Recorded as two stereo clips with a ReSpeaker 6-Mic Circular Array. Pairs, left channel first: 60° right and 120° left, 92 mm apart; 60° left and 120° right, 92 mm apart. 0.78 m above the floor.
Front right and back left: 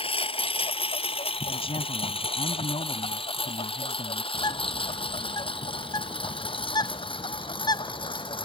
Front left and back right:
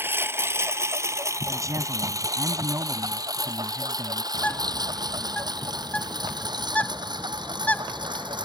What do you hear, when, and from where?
0.0 s a lawn mower: 55° right; by 8.4 s 85° right
1.5 s a man speaking: 65° right
4.3 s a bird: 15° right